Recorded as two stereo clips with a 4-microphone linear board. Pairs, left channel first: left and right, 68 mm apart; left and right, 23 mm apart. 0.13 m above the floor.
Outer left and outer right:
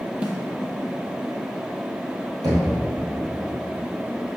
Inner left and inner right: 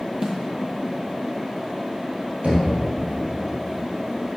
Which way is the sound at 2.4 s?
70° right (ahead or behind).